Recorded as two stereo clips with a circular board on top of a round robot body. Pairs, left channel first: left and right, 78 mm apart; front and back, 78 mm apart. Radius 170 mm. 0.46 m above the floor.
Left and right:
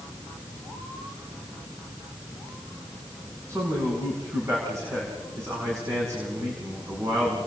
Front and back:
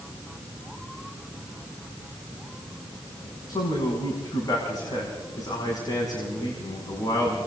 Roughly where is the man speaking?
Ahead right.